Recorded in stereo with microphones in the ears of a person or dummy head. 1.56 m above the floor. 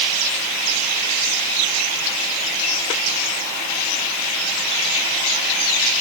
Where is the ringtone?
I don't hear a ringtone.